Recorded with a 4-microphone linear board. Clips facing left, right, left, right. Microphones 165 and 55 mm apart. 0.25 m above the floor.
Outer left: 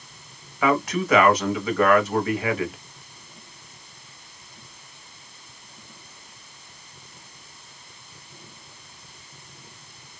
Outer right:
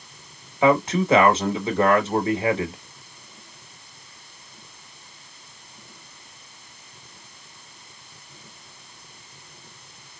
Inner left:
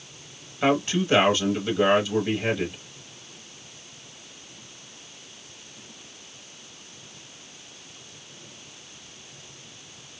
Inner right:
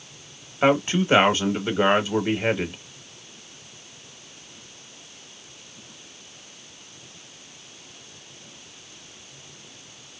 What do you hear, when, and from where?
0.6 s a man speaking: 25° right (ahead or behind), 1.0 m